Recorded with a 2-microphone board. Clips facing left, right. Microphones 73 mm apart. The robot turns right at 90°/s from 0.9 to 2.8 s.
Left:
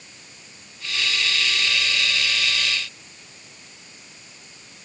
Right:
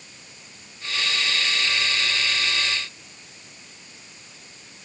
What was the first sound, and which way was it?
Only background noise.